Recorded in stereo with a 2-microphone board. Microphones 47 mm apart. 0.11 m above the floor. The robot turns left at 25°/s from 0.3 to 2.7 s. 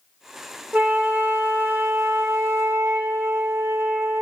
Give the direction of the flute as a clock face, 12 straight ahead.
1 o'clock.